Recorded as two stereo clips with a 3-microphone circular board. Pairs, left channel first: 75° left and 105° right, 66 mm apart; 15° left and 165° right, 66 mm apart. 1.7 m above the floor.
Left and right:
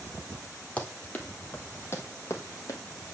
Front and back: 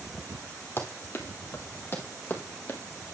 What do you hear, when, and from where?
0.8 s running footsteps: 15° left, 2 m; by 2.8 s 70° left, 2.5 m